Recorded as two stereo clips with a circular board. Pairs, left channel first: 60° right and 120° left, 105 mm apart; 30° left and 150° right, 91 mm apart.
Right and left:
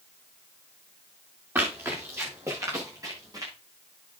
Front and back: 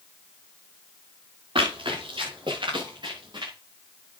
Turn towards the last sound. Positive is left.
turn(degrees=175)